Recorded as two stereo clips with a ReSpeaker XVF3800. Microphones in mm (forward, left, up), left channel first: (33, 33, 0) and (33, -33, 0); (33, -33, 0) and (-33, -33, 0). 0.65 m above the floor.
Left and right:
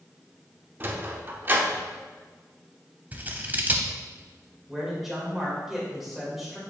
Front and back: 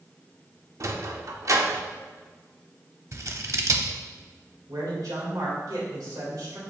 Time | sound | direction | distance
0.8 | a sliding door | 145° right | 0.8 m
3.1 | scissors | 150° right | 0.9 m
4.7 | a man speaking | 175° right | 2.5 m